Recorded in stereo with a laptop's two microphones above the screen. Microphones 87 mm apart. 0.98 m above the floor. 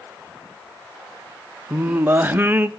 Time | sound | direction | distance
1.7 | singing | 20° right (ahead or behind) | 0.6 m